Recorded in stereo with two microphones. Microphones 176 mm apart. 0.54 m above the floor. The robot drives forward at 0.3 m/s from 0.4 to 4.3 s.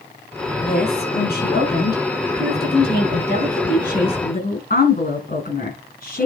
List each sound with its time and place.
0.6 s a woman speaking: 65° left (ahead or behind), 5 m; by 6.3 s 55° left (ahead or behind), 5.5 m